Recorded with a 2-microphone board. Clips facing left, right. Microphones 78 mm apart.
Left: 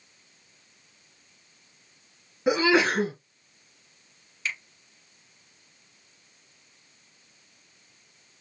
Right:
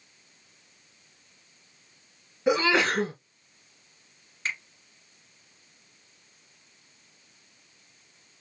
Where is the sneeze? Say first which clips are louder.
Left 2 dB; 15° left (ahead or behind), 2.5 m.